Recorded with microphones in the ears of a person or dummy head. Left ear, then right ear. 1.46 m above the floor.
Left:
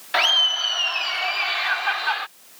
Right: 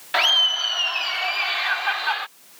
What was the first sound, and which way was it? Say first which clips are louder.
Laughter: even; 5° right (ahead or behind).